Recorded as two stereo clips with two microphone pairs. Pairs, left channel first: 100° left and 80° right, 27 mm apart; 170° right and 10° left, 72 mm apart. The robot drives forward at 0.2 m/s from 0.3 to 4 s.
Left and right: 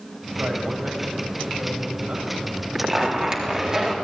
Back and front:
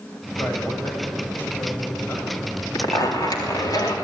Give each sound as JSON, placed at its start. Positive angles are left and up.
{"t": 0.4, "sound": "a man speaking", "azimuth_deg": -110, "distance_m": 7.5}
{"t": 2.8, "sound": "a zipper", "azimuth_deg": -145, "distance_m": 3.5}